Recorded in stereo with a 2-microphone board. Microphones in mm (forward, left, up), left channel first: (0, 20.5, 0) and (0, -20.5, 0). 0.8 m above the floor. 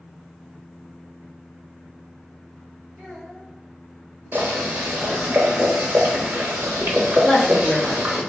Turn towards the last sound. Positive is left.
turn(degrees=25)  # may be behind; listen again after turning